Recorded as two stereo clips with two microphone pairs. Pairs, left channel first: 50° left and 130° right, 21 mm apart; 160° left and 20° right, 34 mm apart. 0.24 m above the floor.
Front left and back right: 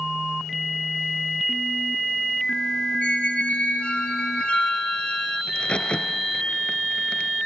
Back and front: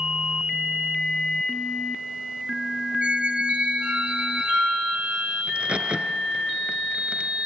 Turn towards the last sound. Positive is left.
turn(degrees=30)